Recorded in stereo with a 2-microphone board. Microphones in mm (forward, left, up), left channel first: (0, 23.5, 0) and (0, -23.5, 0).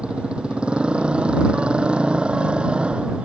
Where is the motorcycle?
20° right (ahead or behind).